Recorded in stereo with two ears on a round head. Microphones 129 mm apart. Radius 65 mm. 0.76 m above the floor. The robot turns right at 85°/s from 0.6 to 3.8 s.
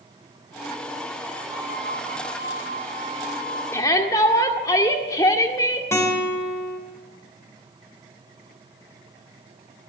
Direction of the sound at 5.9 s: 20° left (ahead or behind).